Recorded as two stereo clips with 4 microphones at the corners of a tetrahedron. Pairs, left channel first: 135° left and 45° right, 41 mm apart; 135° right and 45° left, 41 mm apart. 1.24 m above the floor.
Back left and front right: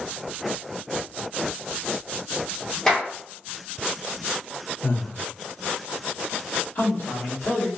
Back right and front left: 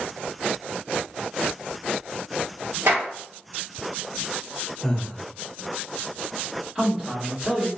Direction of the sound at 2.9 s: 60° left.